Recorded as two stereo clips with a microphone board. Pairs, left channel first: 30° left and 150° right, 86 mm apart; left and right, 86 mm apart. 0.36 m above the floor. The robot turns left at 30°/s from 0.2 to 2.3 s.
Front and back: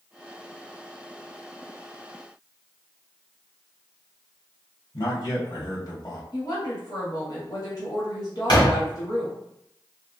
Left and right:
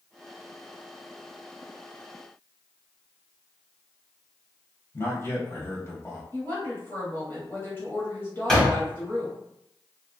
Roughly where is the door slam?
Ahead.